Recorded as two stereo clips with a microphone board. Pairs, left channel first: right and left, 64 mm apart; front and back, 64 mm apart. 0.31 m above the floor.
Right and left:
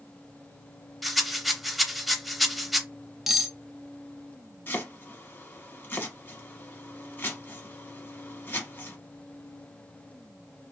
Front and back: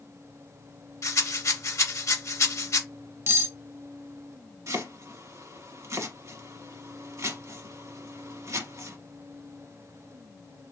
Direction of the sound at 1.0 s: 5° left.